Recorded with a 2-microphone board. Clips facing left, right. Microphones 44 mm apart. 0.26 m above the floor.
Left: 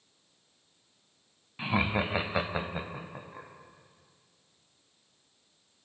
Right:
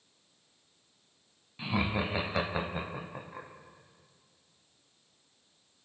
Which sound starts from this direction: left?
Laughter, at 1.6 s.